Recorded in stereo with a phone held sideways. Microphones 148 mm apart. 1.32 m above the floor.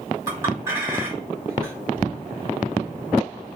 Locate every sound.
0.3 s a clink: 20° right (ahead or behind), 2.5 m